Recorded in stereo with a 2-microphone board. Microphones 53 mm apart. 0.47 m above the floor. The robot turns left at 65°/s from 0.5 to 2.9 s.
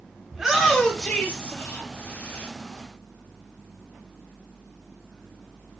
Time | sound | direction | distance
0.3 | a shout | 5° right (ahead or behind) | 0.8 m